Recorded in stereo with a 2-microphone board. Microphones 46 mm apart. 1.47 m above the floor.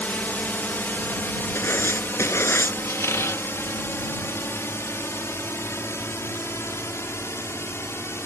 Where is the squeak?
70° left (ahead or behind).